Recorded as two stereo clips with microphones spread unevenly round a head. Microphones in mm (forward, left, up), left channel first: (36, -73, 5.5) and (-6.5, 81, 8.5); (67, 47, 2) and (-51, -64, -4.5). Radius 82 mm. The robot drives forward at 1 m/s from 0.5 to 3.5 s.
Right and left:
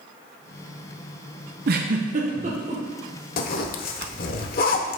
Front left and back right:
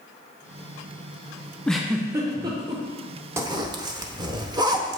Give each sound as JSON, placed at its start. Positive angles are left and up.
{"t": 1.7, "sound": "a giggle", "azimuth_deg": 125, "distance_m": 0.7}
{"t": 3.4, "sound": "a zipper", "azimuth_deg": -65, "distance_m": 0.8}